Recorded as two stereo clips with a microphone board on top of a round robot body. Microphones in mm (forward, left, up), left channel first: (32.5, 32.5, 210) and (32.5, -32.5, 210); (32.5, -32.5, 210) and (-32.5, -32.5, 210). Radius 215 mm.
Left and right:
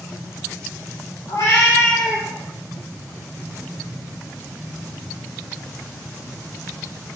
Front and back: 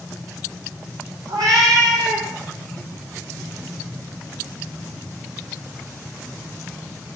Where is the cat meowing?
140° left, 1.6 m; by 2.3 s 160° right, 0.8 m.